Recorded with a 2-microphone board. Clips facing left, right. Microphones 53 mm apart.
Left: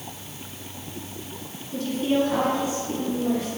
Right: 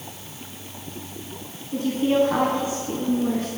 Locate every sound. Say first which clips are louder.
1.7 s a woman speaking: right 3 dB; 30° right (ahead or behind), 1.1 m; by 3.5 s 45° right (ahead or behind), 2 m